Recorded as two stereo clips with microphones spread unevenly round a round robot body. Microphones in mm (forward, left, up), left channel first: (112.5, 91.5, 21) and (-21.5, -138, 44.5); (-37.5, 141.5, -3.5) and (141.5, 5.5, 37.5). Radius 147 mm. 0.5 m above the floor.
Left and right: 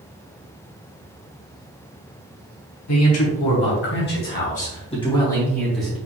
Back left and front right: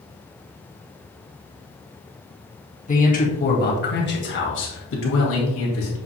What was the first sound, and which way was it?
A man speaking, 90° left.